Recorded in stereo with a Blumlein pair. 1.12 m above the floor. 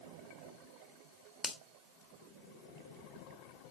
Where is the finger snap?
10° left, 1.5 m.